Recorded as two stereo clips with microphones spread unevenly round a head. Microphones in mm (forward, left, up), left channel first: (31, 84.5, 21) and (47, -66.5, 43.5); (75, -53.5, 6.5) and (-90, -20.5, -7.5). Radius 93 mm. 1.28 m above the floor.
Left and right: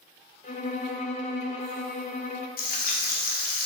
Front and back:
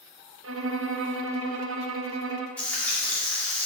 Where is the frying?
70° left, 2.5 m.